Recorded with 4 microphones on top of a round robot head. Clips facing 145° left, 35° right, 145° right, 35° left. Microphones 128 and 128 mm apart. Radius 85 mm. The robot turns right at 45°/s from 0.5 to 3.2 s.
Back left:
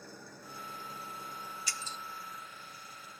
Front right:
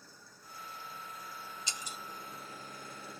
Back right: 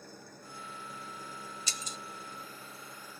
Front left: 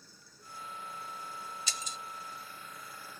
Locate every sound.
0.0 s an engine running: 175° left; by 3.2 s 60° right
1.7 s breaking glass: 35° left; by 2.0 s 45° left